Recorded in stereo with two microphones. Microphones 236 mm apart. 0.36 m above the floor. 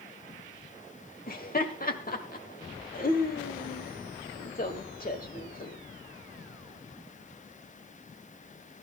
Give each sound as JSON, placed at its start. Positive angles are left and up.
{"t": 1.3, "sound": "laughter", "side_deg": 40, "distance_m": 1.5}